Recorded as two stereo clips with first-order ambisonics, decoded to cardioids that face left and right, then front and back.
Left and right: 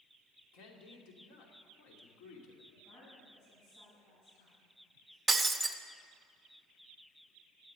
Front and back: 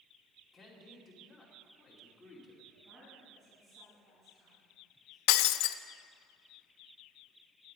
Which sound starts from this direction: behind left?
A woman speaking, at 2.7 s.